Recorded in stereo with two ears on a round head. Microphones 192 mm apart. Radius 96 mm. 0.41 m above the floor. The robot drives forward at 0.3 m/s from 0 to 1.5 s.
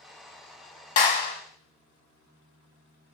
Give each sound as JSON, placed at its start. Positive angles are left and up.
{"t": 1.0, "sound": "a clap", "side_deg": 40, "distance_m": 0.8}